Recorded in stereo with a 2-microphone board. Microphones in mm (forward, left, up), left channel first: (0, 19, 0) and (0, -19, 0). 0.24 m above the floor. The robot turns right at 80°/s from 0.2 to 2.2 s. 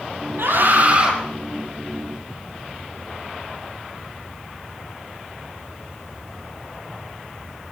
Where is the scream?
85° right, 9.5 m; by 1.1 s 25° right, 9.5 m.